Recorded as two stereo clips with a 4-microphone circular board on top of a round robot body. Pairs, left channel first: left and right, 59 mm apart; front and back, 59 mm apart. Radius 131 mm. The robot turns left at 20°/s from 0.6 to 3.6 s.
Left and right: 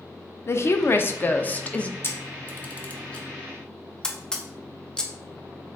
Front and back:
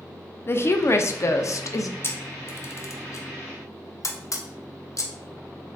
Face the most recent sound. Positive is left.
turn(degrees=15)